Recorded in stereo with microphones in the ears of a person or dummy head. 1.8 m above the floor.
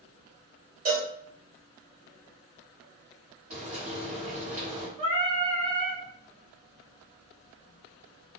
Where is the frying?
45° right (ahead or behind), 1.3 m.